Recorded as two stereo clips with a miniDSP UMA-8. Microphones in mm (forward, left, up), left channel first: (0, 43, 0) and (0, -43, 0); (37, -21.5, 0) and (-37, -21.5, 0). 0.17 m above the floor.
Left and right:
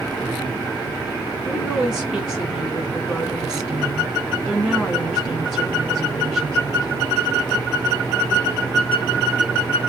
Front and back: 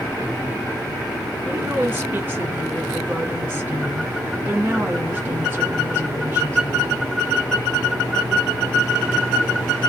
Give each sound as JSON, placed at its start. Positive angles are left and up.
{"t": 1.4, "sound": "a woman speaking", "azimuth_deg": -155, "distance_m": 1.5}